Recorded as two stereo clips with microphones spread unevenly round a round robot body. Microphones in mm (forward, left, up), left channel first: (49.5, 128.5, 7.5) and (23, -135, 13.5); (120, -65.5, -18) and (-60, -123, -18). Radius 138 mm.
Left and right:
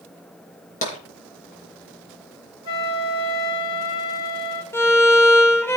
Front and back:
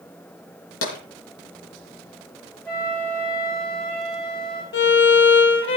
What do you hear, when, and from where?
0.8 s tapping: 20° left, 5 m
2.6 s a flute: 100° left, 3 m
4.7 s a violin: 5° left, 2 m